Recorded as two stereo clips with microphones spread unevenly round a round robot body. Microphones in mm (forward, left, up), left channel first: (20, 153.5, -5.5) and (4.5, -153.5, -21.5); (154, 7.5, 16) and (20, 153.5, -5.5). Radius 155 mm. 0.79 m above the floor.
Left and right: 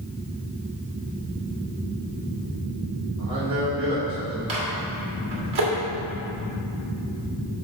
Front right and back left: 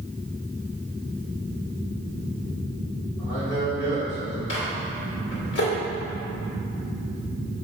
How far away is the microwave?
About 2.0 m.